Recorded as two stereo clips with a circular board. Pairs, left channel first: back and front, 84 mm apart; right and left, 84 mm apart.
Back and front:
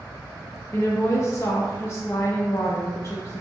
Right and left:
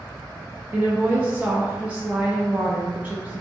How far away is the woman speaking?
About 0.7 m.